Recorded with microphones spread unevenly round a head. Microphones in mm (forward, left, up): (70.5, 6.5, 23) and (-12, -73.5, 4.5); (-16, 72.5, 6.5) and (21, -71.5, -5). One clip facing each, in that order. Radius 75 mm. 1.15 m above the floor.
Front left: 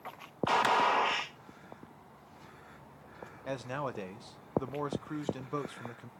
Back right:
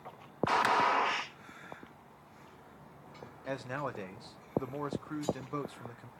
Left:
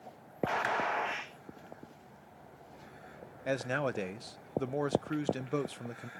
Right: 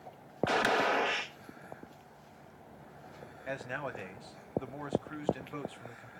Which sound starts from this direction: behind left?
A man speaking, at 3.5 s.